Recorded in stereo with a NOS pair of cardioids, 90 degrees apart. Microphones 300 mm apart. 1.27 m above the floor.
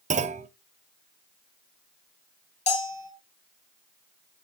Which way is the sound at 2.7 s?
25° left.